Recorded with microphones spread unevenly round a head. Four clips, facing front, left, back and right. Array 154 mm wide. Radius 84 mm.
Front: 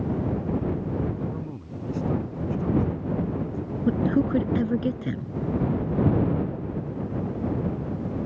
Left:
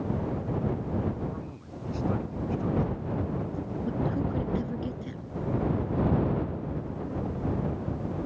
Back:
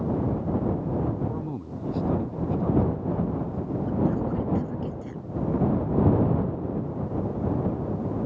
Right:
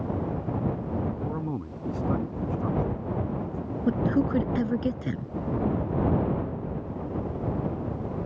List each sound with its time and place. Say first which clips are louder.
1.2 s a man speaking: right 6 dB, back 2 dB; 125° right
3.9 s a man speaking: right 7 dB, front 5 dB; 30° right